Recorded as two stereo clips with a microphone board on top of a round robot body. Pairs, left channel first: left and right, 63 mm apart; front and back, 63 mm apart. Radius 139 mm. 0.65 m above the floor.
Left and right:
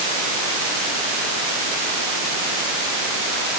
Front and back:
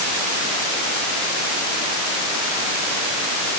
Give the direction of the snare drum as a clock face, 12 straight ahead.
No snare drum in this recording.